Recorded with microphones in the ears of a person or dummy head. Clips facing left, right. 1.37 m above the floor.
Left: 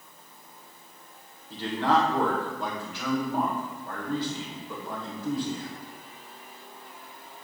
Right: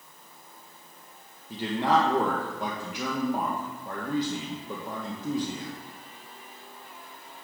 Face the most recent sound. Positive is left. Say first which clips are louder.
# even
turn(degrees=-10)  # may be behind; listen again after turning